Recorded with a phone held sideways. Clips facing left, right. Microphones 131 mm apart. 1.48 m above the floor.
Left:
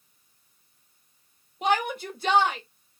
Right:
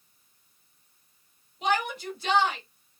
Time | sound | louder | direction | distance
1.6 | a shout | left 2 dB | 50° left (ahead or behind) | 3 m